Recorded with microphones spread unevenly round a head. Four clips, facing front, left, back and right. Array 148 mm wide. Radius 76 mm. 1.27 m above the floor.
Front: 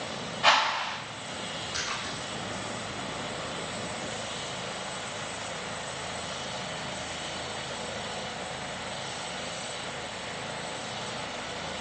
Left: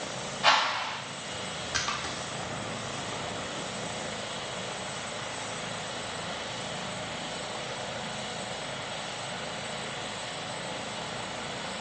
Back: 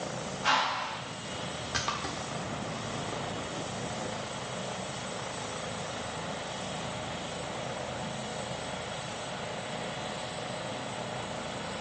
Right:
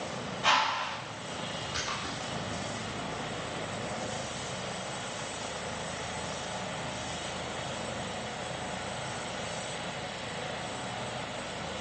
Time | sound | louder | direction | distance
0.4 | a whoosh | left 2 dB, front 4 dB | 30° left | 3.5 m
1.7 | a splash | left 5 dB, back 4 dB | straight behind | 1.2 m